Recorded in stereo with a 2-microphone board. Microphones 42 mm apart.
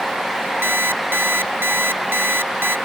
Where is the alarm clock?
65° right (ahead or behind).